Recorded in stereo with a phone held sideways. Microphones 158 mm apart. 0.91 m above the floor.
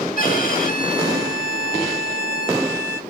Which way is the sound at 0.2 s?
60° left (ahead or behind).